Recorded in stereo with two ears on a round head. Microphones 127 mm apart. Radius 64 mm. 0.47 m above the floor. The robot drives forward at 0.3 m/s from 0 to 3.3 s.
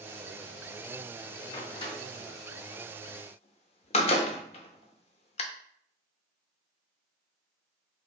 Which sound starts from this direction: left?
A door slam, at 1.5 s.